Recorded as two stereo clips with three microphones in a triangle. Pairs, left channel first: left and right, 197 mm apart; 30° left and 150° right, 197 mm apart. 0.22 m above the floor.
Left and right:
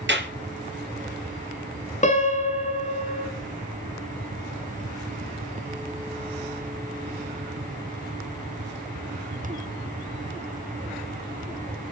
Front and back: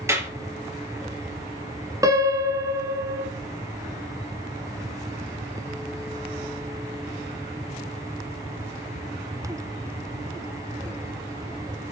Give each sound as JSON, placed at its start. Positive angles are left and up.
{"t": 0.1, "sound": "a clap", "azimuth_deg": -75, "distance_m": 3.0}
{"t": 2.0, "sound": "a piano", "azimuth_deg": 140, "distance_m": 1.5}